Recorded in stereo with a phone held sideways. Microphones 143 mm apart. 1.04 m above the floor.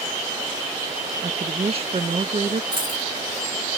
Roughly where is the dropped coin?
Right.